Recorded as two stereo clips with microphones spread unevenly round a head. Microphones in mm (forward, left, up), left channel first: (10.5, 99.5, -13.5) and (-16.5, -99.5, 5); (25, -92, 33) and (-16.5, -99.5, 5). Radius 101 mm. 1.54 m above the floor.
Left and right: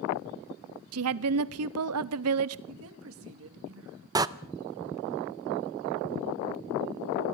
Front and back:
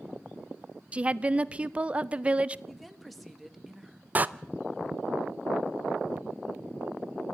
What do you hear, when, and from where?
0.9 s a woman speaking: 115° right, 0.7 m
2.7 s a woman speaking: 80° right, 2.5 m
4.2 s a door slam: 80° right, 0.6 m